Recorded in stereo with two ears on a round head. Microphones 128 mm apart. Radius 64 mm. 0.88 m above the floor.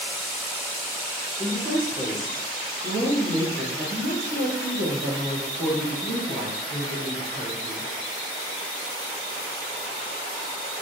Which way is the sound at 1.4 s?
10° left (ahead or behind).